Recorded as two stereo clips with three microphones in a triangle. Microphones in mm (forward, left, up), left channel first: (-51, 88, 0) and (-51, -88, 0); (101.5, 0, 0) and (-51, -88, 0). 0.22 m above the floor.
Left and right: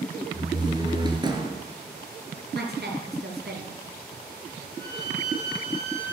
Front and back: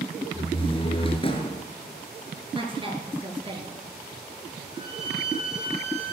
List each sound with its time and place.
0.3 s a door slam: 25° right, 2.5 m
2.5 s a woman speaking: 90° right, 4 m
4.7 s a violin: 160° right, 6.5 m